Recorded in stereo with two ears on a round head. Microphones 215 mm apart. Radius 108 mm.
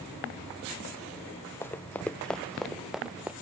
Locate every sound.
1.6 s running footsteps: 10° left (ahead or behind); by 3.3 s 5° right (ahead or behind)